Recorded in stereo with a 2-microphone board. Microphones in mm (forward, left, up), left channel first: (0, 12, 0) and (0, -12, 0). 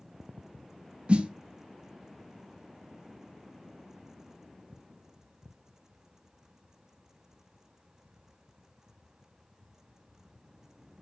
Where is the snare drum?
50° right (ahead or behind), 1.0 m.